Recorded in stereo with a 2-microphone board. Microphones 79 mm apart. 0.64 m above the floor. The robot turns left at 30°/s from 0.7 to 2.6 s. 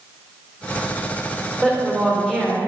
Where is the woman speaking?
20° left (ahead or behind), 1.8 m; by 2.6 s 5° right (ahead or behind), 1.8 m.